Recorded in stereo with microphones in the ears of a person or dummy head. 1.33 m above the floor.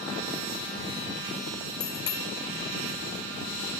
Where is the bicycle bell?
20° left (ahead or behind).